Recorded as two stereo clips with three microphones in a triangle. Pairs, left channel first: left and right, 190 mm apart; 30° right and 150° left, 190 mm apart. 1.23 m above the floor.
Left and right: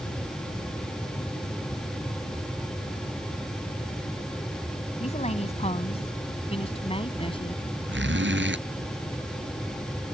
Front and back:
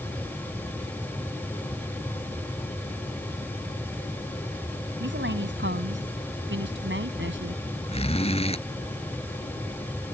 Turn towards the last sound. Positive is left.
turn(degrees=-85)